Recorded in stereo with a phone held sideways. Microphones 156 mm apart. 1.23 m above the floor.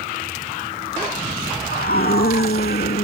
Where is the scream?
85° left.